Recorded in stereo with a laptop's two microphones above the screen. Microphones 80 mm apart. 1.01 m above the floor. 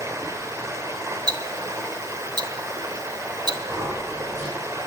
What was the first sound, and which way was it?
Running water, 40° right (ahead or behind).